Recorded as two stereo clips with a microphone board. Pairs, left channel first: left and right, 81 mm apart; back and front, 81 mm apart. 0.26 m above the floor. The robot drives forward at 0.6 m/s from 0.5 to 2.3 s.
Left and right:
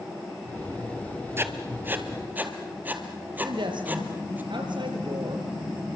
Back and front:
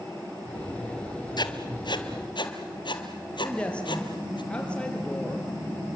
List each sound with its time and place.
1.4 s writing: 150° right, 1.5 m; by 4.4 s 160° right, 2 m
3.4 s a woman speaking: 105° right, 5 m